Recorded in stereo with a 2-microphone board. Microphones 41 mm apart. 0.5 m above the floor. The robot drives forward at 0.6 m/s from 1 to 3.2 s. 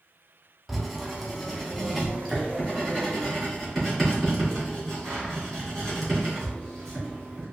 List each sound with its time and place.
0.7 s writing: centre (ahead or behind), 0.6 m